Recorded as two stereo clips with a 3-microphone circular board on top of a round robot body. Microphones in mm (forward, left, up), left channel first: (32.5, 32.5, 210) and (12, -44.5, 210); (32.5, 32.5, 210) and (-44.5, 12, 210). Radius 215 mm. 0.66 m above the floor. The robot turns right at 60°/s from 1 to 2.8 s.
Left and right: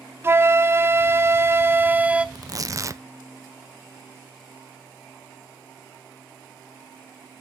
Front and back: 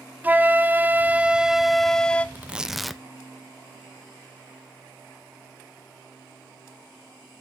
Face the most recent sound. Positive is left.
turn(degrees=-75)